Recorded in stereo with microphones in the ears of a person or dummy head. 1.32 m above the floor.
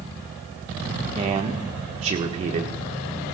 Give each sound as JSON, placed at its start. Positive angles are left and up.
{"t": 1.1, "sound": "a man speaking", "side_deg": -30, "distance_m": 1.3}